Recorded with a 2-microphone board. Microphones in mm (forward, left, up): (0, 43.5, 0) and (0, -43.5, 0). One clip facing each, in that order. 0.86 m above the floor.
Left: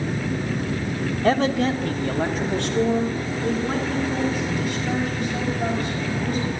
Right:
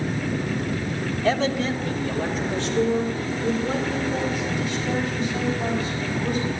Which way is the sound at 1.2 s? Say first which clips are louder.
Left 3 dB; 45° left (ahead or behind).